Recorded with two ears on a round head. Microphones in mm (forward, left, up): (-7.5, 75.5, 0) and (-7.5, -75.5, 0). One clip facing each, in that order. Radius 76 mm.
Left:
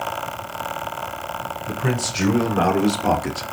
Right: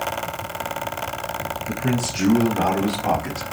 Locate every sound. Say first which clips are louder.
1.7 s a man speaking: right 1 dB; 70° left (ahead or behind), 1.8 m; by 3.5 s 30° left (ahead or behind), 0.7 m